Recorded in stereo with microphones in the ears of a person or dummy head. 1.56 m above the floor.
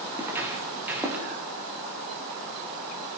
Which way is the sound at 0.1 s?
15° right (ahead or behind).